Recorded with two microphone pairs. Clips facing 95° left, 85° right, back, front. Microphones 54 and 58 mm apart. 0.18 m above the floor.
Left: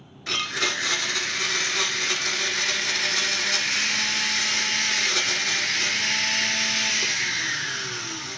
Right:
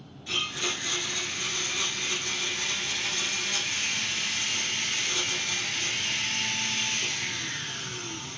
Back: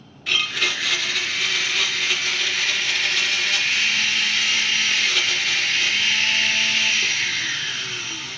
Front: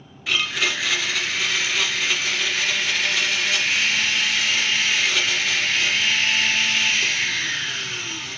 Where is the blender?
90° left, 1.4 m.